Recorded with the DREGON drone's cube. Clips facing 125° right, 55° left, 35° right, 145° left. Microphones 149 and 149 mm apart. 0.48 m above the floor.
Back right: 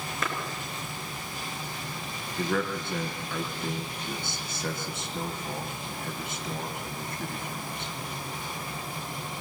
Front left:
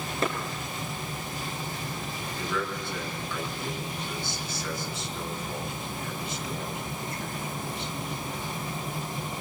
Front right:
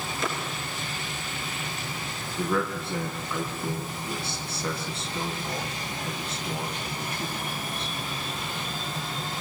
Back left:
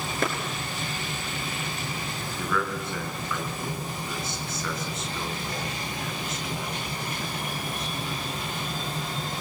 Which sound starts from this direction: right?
A man speaking, at 2.4 s.